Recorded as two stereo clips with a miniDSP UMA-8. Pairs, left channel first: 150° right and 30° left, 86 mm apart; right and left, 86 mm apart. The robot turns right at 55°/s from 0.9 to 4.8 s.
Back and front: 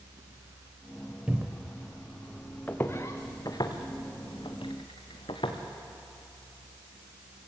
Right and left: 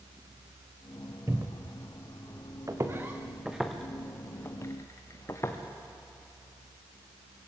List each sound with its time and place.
1.3 s a cupboard door: 95° left, 1.1 m; by 1.8 s 125° left, 1.1 m
2.7 s footsteps: 140° left, 2.5 m; by 5.6 s 150° right, 2.5 m